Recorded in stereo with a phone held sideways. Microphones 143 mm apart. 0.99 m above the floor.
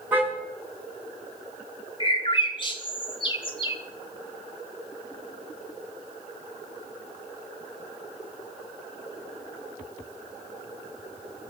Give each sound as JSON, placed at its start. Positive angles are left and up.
{"t": 0.1, "sound": "a car horn", "side_deg": -10, "distance_m": 4.0}
{"t": 2.0, "sound": "a bird", "side_deg": 35, "distance_m": 1.6}